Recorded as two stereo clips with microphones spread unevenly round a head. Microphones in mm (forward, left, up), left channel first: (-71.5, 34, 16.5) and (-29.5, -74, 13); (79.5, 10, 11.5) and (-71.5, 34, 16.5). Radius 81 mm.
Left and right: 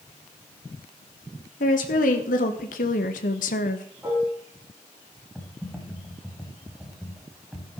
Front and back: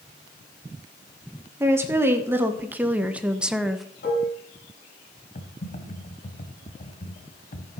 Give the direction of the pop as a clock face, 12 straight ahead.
No pop in this recording.